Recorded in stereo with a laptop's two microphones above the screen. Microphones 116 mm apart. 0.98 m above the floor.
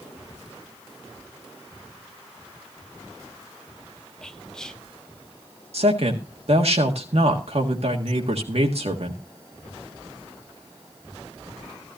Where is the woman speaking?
65° right (ahead or behind), 1.6 m.